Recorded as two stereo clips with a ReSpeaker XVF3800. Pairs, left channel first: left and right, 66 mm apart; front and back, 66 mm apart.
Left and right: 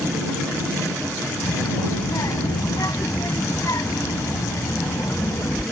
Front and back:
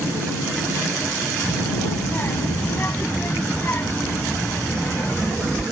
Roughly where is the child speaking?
Ahead left.